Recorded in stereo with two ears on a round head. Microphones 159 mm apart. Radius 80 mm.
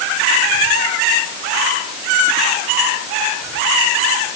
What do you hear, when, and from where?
Only background noise.